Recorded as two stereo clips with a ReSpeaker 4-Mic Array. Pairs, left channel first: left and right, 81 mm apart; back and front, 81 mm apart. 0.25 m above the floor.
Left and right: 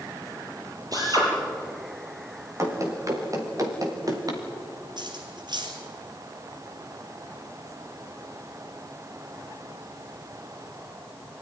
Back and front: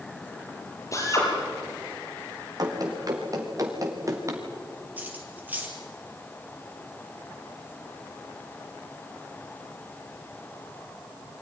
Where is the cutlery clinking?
70° right, 3.5 m.